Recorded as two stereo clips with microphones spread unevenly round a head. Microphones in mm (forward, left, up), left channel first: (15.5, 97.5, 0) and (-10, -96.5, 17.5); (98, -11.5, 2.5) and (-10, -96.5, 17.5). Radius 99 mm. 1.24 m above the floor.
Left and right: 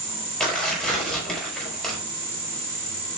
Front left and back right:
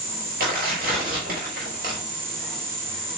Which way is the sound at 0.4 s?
170° left.